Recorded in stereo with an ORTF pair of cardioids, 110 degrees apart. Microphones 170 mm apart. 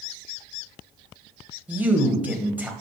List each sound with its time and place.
1.7 s a man speaking: 10° right, 1.3 m